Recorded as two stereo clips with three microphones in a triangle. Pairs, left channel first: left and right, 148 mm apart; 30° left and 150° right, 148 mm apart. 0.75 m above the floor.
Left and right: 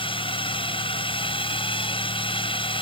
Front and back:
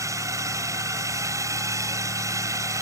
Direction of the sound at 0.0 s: 140° left.